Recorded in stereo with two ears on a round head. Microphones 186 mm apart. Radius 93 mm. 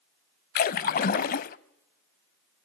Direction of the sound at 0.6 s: 45° left (ahead or behind).